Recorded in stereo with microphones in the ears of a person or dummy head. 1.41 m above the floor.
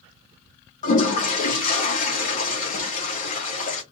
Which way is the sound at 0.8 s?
45° left (ahead or behind).